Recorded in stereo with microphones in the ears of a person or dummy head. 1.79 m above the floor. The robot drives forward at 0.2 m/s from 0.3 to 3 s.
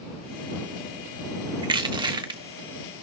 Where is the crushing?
25° right (ahead or behind), 1.3 m; by 2.4 s 20° right (ahead or behind), 1.4 m.